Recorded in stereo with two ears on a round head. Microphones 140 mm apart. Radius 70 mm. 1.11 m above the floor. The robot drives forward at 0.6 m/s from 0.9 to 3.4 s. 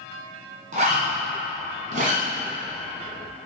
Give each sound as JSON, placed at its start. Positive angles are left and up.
{"t": 0.7, "sound": "a zipper", "side_deg": -50, "distance_m": 1.7}